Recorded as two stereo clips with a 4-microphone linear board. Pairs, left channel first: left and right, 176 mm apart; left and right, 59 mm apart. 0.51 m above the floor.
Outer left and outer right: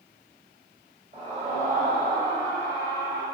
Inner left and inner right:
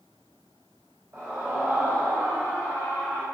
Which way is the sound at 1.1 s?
40° right (ahead or behind).